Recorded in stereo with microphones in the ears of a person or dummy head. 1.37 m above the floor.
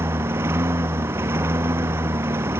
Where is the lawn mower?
15° right (ahead or behind).